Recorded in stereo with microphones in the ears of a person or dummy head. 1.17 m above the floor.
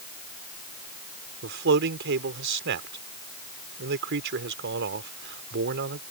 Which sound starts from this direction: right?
A man speaking, at 1.4 s.